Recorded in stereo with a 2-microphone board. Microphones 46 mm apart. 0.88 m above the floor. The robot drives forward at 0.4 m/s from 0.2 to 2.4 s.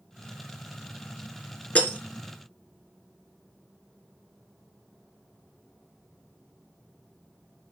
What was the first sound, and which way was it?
Breaking glass, 30° left (ahead or behind).